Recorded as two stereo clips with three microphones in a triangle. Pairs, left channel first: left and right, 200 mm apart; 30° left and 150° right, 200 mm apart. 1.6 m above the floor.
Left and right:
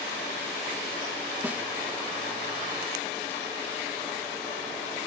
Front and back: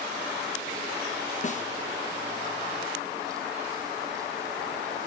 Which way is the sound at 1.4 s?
15° right.